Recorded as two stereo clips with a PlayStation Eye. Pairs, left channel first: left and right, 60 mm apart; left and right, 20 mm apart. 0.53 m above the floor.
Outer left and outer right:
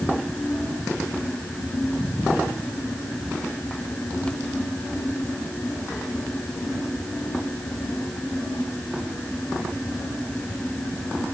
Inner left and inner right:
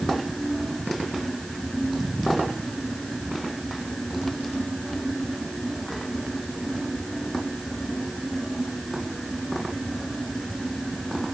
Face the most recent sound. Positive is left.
No sound to turn to.